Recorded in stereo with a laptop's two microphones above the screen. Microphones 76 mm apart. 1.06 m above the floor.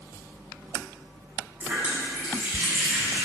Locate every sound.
1.6 s a running tap: 25° right (ahead or behind), 1.3 m